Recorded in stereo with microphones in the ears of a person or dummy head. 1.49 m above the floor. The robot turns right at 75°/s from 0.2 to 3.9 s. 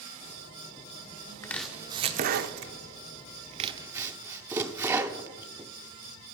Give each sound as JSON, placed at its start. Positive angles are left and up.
{"t": 1.4, "sound": "chopping", "side_deg": 15, "distance_m": 0.6}